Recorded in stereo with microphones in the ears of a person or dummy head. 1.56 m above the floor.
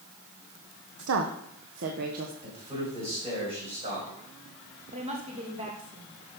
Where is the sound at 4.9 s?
35° right (ahead or behind), 2.5 m.